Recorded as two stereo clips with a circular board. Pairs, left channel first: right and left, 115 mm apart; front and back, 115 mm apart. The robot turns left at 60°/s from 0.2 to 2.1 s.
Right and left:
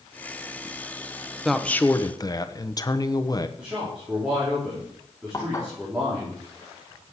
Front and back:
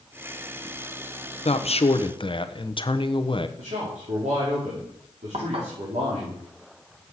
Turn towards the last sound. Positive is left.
turn(degrees=-150)